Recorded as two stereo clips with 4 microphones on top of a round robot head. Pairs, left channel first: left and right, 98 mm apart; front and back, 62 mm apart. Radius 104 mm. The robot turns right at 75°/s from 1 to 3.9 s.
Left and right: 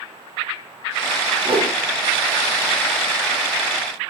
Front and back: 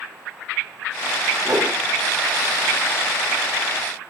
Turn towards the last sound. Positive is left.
turn(degrees=45)